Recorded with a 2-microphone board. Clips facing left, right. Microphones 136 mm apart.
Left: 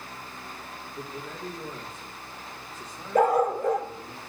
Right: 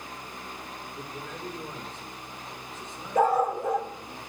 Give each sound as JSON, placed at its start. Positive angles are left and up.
{"t": 0.9, "sound": "a man speaking", "side_deg": 55, "distance_m": 6.5}
{"t": 3.1, "sound": "a dog barking", "side_deg": 70, "distance_m": 1.2}